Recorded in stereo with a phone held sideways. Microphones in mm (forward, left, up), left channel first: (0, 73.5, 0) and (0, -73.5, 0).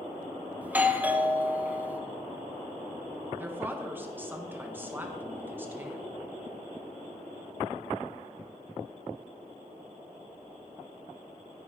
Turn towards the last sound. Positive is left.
turn(degrees=-15)  # may be behind; listen again after turning